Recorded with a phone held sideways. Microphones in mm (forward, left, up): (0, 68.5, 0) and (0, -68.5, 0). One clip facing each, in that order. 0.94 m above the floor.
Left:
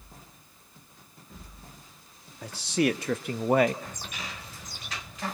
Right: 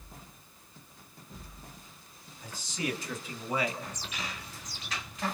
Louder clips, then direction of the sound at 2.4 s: Left 10 dB; 75° left (ahead or behind).